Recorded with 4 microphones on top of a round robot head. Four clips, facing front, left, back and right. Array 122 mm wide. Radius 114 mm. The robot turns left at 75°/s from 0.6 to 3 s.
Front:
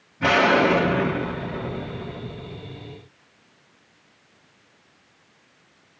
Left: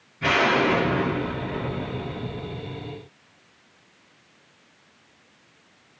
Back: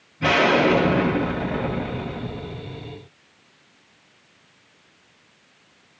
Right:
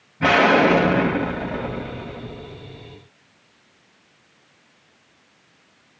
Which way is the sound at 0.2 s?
75° right.